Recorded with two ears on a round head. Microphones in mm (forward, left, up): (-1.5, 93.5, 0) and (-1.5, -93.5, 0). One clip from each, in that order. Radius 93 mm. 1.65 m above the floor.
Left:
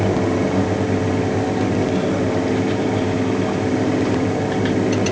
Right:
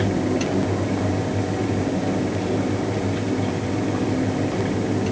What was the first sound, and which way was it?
Only background noise.